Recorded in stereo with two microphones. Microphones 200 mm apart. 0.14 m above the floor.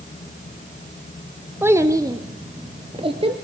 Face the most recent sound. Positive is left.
turn(degrees=-30)  # may be behind; listen again after turning